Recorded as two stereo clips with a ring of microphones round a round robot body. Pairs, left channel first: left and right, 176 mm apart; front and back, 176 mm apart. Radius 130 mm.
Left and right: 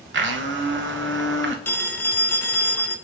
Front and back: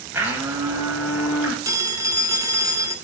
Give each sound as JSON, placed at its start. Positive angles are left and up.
{"t": 0.1, "sound": "a blender", "azimuth_deg": -100, "distance_m": 0.7}
{"t": 1.6, "sound": "a phone ringing", "azimuth_deg": 145, "distance_m": 0.6}